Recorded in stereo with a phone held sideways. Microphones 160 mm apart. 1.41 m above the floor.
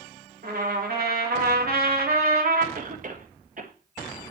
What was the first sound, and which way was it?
A trumpet, 75° right (ahead or behind).